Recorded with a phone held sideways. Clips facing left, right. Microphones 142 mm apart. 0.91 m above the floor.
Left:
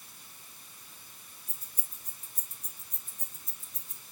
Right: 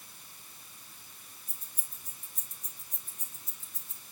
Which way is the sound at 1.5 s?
60° left (ahead or behind).